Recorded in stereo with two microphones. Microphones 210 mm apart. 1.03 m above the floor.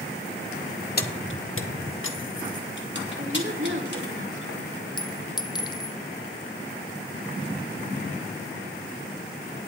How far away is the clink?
About 0.5 m.